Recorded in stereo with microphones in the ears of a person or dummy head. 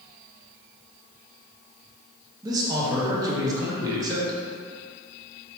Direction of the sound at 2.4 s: 25° right (ahead or behind).